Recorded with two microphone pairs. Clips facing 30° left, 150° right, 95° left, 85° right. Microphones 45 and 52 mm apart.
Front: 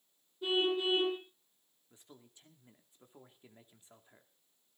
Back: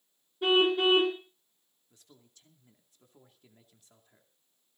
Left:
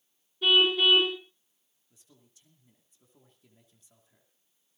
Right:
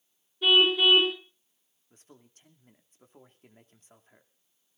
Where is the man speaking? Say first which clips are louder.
Front 2 dB, right 7 dB; 40° right, 2.5 m.